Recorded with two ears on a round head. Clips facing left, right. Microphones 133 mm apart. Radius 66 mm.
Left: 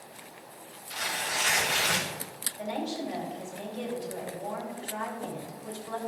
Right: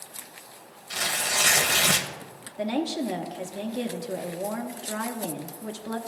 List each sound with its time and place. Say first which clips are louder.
0.9 s tearing paper: right 3 dB; 60° right (ahead or behind), 0.9 m
2.6 s a woman speaking: right 6 dB; 65° right (ahead or behind), 1.1 m